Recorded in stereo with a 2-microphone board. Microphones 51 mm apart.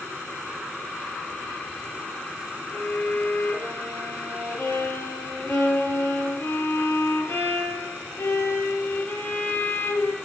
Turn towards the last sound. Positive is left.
turn(degrees=70)  # may be behind; listen again after turning